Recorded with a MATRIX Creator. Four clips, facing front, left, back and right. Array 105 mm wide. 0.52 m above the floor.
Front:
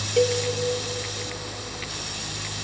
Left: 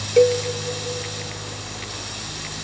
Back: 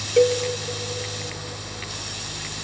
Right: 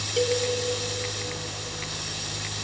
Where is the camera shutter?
No camera shutter in this recording.